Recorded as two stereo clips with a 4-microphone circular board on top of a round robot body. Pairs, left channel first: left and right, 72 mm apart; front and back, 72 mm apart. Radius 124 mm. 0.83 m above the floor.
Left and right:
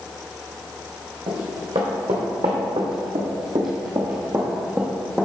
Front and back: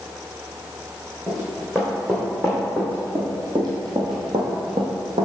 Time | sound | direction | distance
1.3 | running footsteps | 100° right | 2.5 m